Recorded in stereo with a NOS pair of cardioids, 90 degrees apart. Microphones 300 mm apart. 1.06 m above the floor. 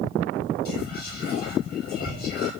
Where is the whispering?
50° left, 2 m.